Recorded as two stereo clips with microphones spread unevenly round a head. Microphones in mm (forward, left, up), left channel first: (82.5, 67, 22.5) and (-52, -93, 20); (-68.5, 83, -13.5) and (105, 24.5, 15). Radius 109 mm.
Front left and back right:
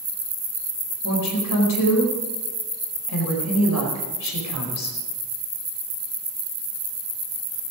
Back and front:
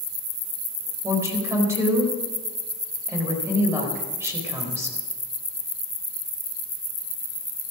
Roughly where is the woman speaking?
Ahead left.